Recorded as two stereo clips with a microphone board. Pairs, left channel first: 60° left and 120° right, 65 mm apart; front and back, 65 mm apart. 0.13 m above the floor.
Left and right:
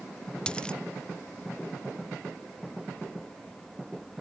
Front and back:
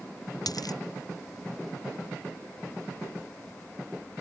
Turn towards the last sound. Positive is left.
turn(degrees=-15)